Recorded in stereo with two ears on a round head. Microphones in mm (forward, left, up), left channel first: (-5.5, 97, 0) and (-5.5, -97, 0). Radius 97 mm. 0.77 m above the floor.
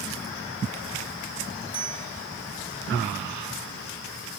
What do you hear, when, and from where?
1.7 s a bicycle bell: 20° right (ahead or behind), 9 m